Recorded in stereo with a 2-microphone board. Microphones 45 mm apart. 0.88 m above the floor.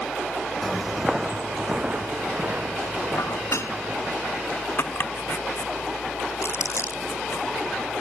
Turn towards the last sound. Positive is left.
turn(degrees=85)